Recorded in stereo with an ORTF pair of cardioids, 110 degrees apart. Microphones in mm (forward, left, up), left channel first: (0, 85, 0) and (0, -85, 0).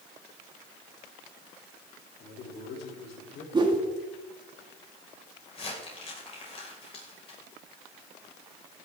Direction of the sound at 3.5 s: 25° right.